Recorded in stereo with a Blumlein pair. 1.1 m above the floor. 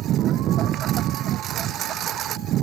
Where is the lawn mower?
30° right.